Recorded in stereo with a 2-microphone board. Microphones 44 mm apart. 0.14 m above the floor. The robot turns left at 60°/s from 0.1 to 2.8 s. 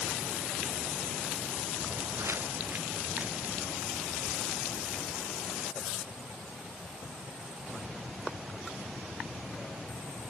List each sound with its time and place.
1.8 s footsteps: 75° right (ahead or behind); by 5.4 s 30° right (ahead or behind)